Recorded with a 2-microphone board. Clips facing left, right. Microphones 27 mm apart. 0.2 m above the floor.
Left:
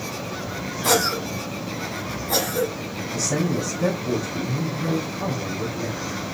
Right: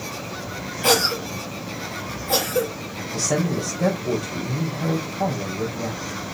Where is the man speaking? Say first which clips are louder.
Right 1 dB; 60° right (ahead or behind), 4 m.